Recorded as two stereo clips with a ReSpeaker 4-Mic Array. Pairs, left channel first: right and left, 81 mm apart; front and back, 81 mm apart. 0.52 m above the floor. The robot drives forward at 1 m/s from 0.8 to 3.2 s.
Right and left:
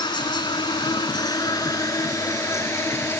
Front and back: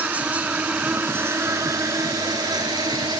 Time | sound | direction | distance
0.0 | an insect | 110° right | ?